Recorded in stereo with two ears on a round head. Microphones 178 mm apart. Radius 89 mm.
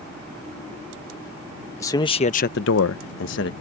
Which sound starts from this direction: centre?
A man speaking, at 1.8 s.